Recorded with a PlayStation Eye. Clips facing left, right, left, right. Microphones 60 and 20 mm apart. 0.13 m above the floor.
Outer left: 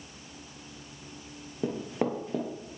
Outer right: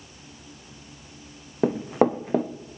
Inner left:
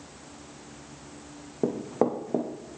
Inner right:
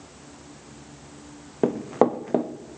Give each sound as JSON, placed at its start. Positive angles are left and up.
{"t": 1.6, "sound": "running footsteps", "side_deg": -60, "distance_m": 0.6}